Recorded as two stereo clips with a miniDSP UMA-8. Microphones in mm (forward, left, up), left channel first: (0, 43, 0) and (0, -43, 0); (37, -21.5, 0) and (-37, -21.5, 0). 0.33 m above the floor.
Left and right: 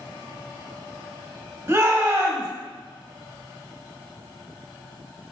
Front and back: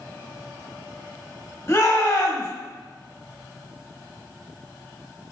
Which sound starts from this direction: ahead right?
A shout, at 1.7 s.